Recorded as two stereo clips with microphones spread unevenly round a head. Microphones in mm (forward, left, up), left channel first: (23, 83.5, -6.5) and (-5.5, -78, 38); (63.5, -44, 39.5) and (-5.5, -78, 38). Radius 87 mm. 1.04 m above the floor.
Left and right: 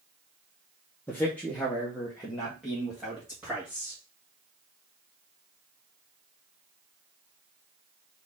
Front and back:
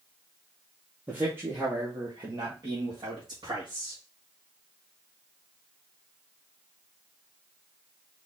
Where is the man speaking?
140° left, 1.1 m; by 4.0 s 170° left, 2.5 m.